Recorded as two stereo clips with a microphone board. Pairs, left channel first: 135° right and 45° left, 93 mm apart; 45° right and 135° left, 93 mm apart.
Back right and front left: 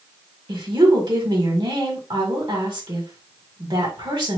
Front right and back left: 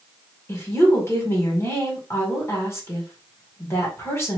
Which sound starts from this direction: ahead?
A woman speaking, at 0.5 s.